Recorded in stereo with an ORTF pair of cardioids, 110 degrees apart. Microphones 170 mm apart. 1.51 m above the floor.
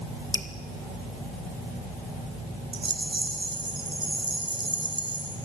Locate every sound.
0.3 s dripping: 15° left, 2.5 m
2.7 s a rattle: 30° right, 4.5 m